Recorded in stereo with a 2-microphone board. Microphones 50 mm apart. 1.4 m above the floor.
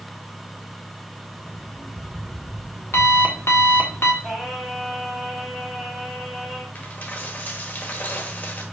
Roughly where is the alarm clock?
Left.